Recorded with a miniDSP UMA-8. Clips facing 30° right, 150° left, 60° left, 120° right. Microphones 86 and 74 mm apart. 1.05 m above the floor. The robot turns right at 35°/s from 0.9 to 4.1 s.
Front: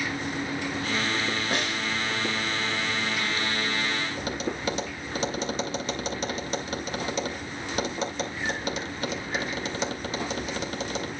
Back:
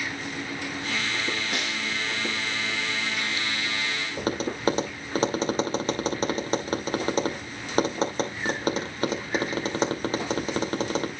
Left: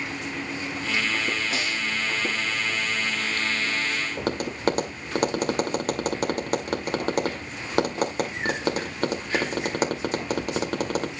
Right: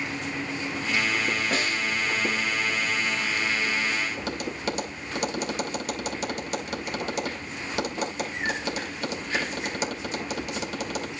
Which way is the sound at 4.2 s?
100° left.